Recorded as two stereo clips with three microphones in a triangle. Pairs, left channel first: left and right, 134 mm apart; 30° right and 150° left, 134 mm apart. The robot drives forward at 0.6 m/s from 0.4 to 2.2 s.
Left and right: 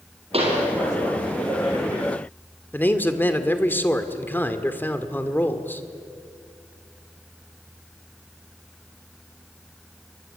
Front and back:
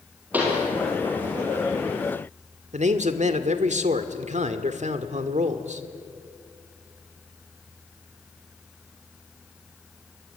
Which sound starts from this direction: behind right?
A pop, at 0.3 s.